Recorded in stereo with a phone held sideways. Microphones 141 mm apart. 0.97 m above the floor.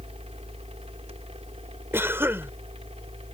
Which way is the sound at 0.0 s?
50° right (ahead or behind).